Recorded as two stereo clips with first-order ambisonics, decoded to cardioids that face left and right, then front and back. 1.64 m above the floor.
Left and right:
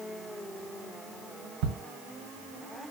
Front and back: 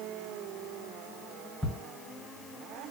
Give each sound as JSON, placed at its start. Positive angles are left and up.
{"t": 1.6, "sound": "ticking", "azimuth_deg": -85, "distance_m": 1.1}